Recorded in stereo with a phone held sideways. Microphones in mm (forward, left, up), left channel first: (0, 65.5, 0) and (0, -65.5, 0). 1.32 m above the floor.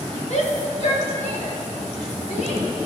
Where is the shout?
60° left (ahead or behind), 2.5 m; by 2.6 s 65° left (ahead or behind), 4.5 m.